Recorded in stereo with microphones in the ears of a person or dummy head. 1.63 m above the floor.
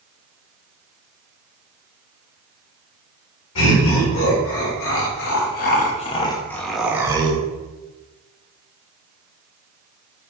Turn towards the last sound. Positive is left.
turn(degrees=-30)  # may be behind; listen again after turning